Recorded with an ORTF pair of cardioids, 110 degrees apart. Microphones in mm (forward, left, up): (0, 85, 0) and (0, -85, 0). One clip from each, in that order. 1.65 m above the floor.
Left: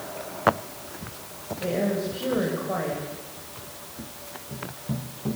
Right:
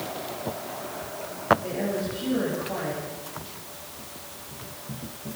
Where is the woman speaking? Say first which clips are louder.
Left 2 dB; 65° left, 8 m.